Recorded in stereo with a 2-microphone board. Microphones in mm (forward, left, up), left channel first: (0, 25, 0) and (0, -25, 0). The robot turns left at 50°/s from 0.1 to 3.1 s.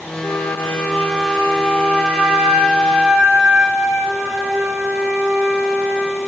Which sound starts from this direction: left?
A flute, at 0.2 s.